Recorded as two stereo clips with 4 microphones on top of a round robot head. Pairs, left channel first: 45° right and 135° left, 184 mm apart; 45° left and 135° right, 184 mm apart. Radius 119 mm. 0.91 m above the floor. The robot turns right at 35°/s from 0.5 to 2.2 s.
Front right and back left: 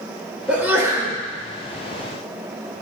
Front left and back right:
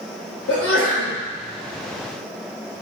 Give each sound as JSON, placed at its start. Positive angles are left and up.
{"t": 0.5, "sound": "a sneeze", "azimuth_deg": 50, "distance_m": 3.5}